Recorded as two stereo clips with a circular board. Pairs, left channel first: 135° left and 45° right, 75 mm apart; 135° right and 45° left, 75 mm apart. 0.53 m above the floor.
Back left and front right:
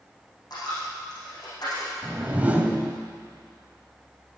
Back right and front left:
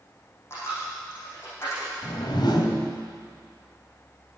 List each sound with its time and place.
0.5 s a dropped coin: 170° left, 7.5 m
2.0 s a whoosh: 120° right, 1.9 m